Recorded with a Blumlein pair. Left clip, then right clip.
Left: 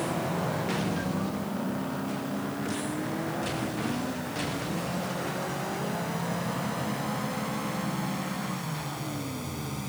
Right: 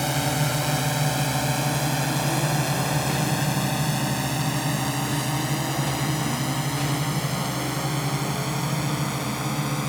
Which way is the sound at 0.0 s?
50° right.